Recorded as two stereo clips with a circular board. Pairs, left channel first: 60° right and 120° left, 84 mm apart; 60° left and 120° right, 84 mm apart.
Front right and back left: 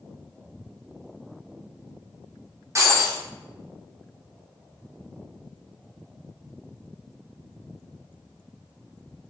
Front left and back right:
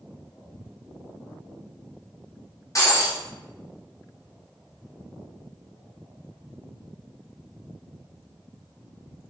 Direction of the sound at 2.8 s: 85° left.